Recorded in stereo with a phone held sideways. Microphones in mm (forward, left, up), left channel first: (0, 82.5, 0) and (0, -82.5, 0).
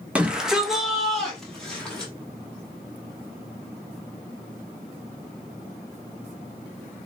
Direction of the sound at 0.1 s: 10° right (ahead or behind).